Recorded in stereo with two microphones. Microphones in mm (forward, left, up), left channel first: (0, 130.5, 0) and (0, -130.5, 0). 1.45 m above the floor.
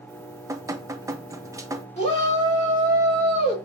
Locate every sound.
0.1 s dripping: 10° right (ahead or behind), 0.8 m
2.0 s a shout: 25° left (ahead or behind), 4 m